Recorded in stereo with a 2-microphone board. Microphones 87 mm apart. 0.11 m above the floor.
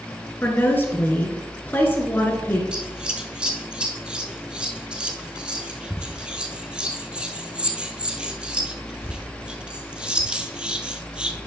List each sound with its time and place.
0.4 s a woman speaking: 20° left (ahead or behind), 1.2 m
2.7 s scissors: 10° right (ahead or behind), 0.7 m